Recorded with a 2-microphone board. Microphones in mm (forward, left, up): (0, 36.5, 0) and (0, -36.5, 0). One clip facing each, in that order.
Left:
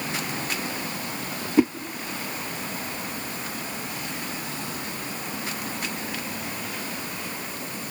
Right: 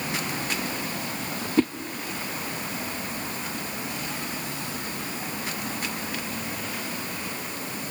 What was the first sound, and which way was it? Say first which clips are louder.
A whoosh: left 3 dB; 15° left (ahead or behind).